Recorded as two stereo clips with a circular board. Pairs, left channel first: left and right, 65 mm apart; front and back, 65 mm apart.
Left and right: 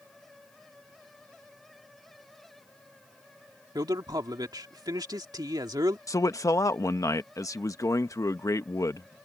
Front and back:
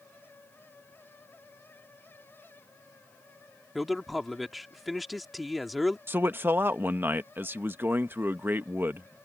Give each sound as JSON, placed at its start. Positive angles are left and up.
{"t": 3.8, "sound": "a man speaking", "azimuth_deg": -90}
{"t": 6.1, "sound": "a man speaking", "azimuth_deg": 125}